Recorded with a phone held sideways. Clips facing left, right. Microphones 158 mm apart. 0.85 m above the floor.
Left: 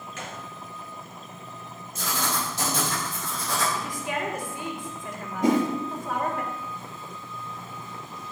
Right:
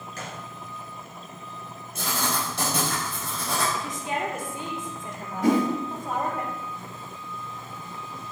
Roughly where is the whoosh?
Centre.